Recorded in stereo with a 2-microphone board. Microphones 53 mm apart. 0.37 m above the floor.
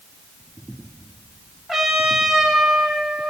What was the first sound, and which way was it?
A trumpet, centre (ahead or behind).